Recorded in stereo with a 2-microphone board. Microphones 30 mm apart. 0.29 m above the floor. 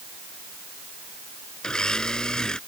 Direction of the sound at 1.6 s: 25° left (ahead or behind).